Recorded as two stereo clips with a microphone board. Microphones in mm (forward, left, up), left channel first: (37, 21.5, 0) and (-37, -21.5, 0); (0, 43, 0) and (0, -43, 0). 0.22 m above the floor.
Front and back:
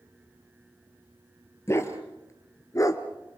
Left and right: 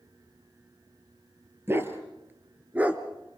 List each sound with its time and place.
1.7 s a dog barking: 30° right, 2 m; by 3.0 s 15° right, 1.3 m